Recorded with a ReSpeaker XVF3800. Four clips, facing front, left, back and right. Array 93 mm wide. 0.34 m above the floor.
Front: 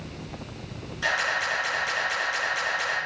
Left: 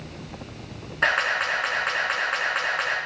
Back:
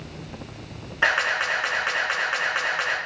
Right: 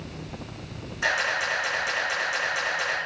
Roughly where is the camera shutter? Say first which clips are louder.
Left 3 dB, back 4 dB; behind left.